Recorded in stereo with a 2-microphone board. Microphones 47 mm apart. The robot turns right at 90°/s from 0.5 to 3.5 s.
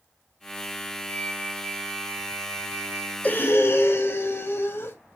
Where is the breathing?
30° left (ahead or behind), 1.4 m; by 5.0 s 55° left (ahead or behind), 1.4 m.